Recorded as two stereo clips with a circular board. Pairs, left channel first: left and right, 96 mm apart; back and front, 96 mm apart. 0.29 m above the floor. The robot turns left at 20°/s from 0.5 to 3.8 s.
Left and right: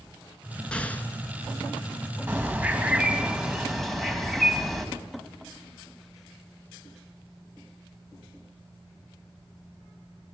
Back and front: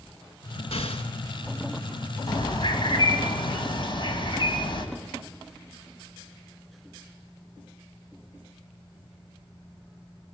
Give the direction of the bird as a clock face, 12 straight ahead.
5 o'clock.